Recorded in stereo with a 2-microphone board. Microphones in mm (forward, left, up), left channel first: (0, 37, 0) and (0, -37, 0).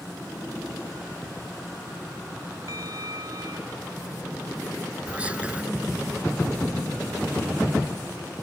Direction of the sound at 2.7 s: 55° right (ahead or behind).